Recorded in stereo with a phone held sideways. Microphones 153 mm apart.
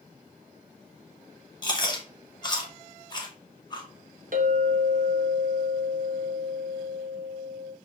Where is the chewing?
30° left (ahead or behind), 0.8 m.